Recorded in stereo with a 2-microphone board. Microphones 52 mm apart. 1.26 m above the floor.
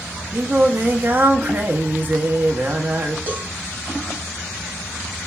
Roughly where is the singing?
Right.